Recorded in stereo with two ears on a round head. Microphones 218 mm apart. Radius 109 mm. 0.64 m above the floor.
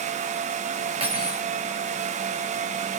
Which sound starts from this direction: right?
Cutlery clinking, at 1.0 s.